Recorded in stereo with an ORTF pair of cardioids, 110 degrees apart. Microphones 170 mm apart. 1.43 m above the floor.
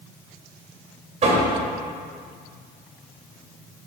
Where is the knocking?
40° right, 2.5 m.